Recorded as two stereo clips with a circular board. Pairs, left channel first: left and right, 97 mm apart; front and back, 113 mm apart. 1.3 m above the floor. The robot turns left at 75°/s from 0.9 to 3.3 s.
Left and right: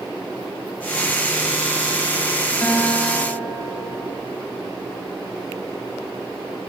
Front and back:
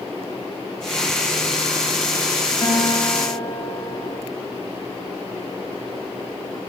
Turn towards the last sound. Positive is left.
turn(degrees=-30)